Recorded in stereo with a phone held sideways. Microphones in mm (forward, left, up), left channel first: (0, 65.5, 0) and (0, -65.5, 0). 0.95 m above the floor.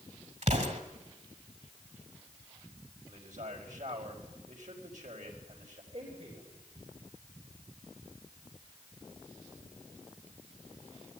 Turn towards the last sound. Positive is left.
turn(degrees=-50)  # may be behind; listen again after turning